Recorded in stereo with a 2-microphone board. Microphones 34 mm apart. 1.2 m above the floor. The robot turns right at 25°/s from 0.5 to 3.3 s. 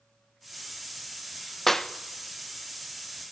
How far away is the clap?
About 0.8 m.